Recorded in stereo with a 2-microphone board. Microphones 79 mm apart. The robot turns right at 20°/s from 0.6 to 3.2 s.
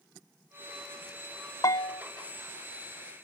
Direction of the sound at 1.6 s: 55° left (ahead or behind).